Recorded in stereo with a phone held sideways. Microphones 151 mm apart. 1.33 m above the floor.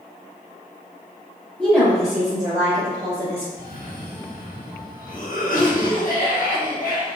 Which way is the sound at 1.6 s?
Centre (ahead or behind).